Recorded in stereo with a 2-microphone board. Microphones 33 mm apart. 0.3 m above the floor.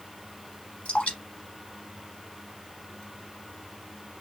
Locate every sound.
0.8 s dripping: 40° left (ahead or behind), 1.2 m